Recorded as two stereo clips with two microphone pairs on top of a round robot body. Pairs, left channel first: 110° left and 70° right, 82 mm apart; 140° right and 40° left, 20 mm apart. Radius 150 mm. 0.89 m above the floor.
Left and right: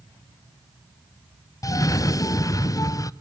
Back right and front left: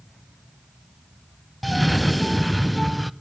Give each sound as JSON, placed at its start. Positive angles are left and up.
{"t": 1.6, "sound": "a cough", "azimuth_deg": 130, "distance_m": 0.7}